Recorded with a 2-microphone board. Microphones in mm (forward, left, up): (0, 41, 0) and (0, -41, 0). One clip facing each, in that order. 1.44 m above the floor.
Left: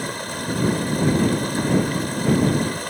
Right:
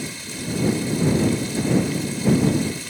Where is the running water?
55° left (ahead or behind).